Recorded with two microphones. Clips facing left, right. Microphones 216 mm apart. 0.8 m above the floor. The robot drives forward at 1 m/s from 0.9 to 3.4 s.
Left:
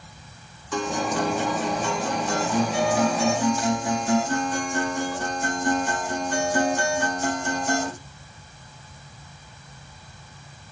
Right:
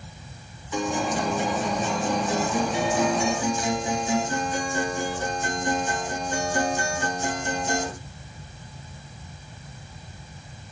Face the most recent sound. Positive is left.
turn(degrees=75)  # may be behind; listen again after turning